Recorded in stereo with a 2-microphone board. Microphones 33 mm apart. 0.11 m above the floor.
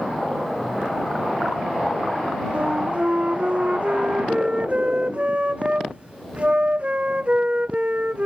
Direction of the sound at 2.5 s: 40° right (ahead or behind).